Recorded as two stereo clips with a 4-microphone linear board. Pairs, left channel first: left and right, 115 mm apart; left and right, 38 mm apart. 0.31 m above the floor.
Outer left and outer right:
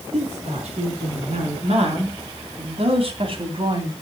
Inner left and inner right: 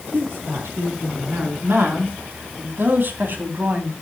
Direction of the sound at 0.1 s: 70° right (ahead or behind).